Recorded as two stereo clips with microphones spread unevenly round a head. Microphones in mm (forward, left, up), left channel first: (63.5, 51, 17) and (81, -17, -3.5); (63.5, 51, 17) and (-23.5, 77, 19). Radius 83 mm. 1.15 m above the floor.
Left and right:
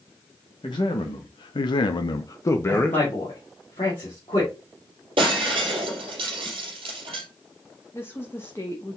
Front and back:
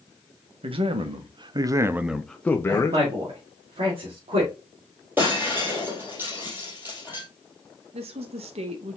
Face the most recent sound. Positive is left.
turn(degrees=180)